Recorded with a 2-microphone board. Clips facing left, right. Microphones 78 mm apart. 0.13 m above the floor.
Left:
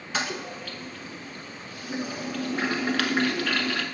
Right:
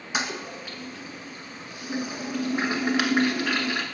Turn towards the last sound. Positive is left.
turn(degrees=-15)  # may be behind; listen again after turning